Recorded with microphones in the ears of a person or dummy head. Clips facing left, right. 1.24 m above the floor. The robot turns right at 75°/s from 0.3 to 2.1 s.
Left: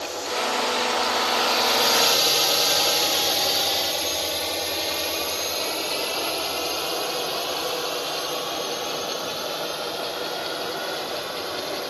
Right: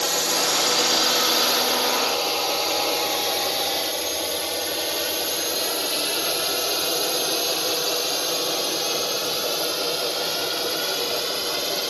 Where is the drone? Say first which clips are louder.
Right 2 dB; 70° right (ahead or behind); by 11.9 s 35° right (ahead or behind).